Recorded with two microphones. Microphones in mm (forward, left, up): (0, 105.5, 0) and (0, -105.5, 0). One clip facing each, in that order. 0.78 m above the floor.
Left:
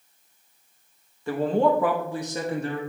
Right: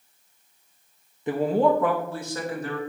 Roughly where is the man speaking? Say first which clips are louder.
Right 1 dB; centre.